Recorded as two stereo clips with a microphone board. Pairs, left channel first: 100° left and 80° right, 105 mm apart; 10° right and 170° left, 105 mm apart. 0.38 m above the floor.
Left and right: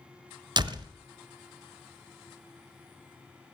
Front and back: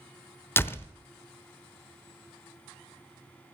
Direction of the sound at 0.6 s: 75° right.